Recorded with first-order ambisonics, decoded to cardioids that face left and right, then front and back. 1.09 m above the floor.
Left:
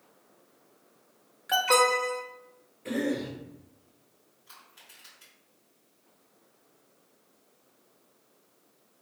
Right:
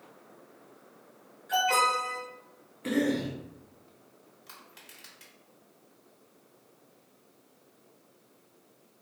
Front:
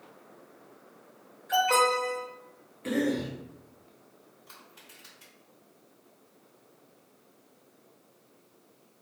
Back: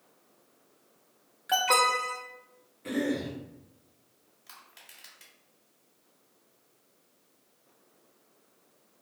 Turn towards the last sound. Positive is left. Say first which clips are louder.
# right 1 dB, back 1 dB
turn(degrees=-135)